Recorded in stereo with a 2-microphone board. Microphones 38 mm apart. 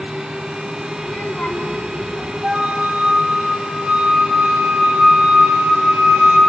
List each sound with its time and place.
1.0 s a child speaking: 35° left (ahead or behind), 3.5 m
2.4 s a flute: 50° right (ahead or behind), 4 m